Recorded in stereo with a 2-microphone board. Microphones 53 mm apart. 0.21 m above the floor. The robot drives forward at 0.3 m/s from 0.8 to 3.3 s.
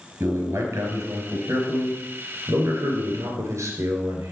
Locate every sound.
0.2 s a man speaking: 65° right (ahead or behind), 3 m; by 4.3 s 70° right (ahead or behind), 3 m